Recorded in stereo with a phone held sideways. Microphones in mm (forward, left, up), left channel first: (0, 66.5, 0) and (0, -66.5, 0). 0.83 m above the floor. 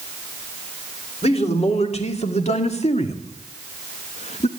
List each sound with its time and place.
1.2 s a man speaking: 50° left (ahead or behind), 2.5 m